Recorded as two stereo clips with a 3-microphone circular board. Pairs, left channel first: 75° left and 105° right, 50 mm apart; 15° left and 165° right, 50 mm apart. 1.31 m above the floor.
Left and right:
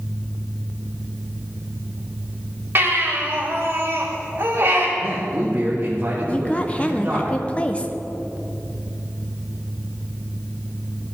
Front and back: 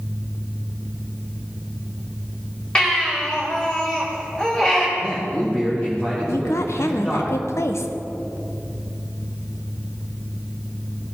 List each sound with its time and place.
2.8 s a baby crying: 60° right, 3 m
5.0 s a man speaking: 50° right, 2 m
6.3 s a woman speaking: 10° left, 0.8 m